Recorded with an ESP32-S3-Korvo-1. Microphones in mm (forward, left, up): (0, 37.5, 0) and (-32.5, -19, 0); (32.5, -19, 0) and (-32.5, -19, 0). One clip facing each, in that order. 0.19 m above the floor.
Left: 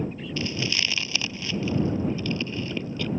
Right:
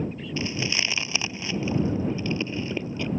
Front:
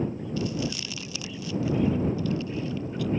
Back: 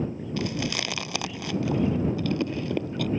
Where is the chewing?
170° left.